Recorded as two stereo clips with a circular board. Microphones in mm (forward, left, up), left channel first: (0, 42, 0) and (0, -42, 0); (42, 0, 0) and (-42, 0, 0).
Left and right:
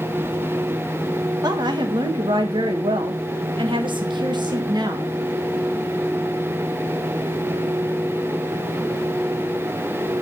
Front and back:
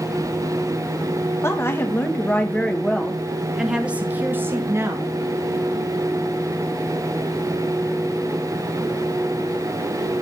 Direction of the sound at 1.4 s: 60° right.